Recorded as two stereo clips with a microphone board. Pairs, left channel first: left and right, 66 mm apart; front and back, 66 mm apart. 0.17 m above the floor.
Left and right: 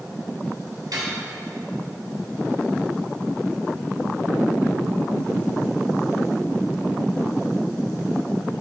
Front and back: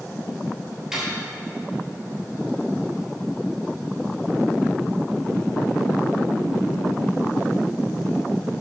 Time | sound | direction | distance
0.9 | cutlery clinking | 100° right | 2 m